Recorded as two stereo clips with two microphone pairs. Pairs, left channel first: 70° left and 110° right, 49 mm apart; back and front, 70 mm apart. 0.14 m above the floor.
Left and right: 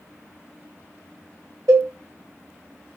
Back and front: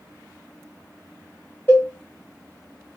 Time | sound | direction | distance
1.7 | a cowbell | 115° right | 2 m